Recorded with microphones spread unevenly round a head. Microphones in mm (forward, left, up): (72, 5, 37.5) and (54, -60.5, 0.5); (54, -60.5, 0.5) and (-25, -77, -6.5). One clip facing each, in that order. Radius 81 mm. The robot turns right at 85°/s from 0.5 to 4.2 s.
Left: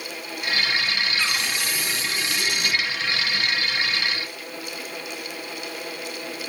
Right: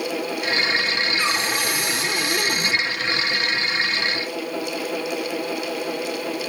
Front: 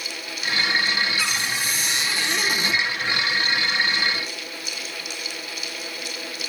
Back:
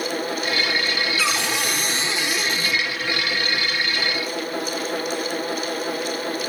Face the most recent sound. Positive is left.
turn(degrees=70)